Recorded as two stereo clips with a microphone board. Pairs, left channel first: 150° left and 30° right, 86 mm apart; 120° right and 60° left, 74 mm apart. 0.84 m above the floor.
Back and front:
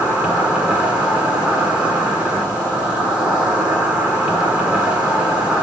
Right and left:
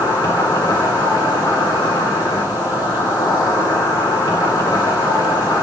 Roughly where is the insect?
Right.